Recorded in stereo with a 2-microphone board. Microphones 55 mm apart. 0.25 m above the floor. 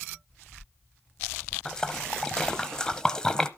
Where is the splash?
10° left (ahead or behind), 0.9 m.